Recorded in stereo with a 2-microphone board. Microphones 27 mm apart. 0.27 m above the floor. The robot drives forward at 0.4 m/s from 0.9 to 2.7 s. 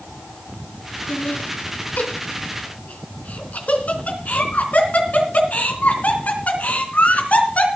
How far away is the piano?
No piano in this recording.